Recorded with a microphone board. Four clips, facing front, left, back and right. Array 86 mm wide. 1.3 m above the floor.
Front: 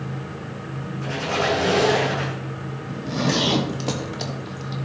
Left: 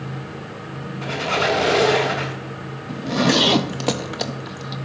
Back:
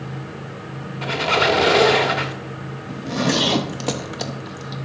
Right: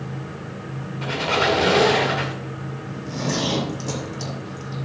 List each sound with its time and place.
1.0 s a squeak: 170° right, 1.5 m
2.9 s a zipper: 105° left, 0.7 m